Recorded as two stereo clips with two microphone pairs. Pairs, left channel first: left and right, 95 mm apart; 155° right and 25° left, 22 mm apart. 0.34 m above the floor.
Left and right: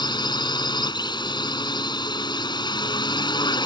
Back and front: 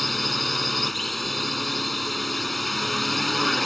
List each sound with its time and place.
0.0 s a drone: 115° left